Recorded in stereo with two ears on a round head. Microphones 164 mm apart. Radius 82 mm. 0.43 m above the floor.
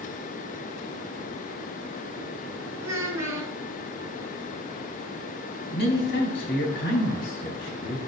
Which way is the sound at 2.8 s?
15° right (ahead or behind).